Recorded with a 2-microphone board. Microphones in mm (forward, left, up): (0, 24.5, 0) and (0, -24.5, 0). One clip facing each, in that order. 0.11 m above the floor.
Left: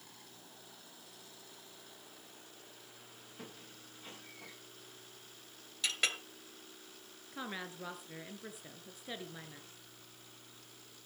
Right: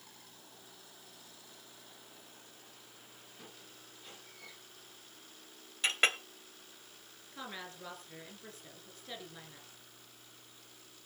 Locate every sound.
3.4 s a squeak: 25° left (ahead or behind), 9 m
5.8 s a clink: 35° right (ahead or behind), 0.8 m
7.3 s a woman speaking: 15° left (ahead or behind), 1.8 m